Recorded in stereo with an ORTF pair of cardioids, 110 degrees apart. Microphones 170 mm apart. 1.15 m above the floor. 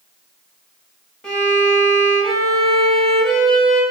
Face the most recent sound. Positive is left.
turn(degrees=5)